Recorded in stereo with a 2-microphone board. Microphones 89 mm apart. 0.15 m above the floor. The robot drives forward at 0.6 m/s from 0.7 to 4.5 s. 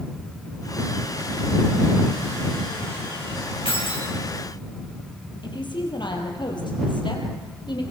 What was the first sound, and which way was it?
Keys jangling, 70° left (ahead or behind).